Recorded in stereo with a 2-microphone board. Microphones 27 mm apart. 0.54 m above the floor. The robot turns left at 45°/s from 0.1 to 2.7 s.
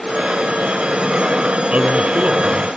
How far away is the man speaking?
About 1.8 m.